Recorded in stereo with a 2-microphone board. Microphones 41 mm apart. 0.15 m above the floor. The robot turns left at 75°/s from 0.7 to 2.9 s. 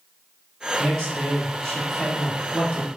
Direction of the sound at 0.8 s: 75° left.